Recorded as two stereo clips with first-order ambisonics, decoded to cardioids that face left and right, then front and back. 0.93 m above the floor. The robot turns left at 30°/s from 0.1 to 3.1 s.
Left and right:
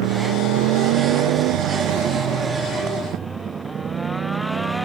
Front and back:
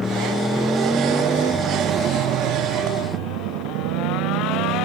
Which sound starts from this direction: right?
A motorcycle, at 0.0 s.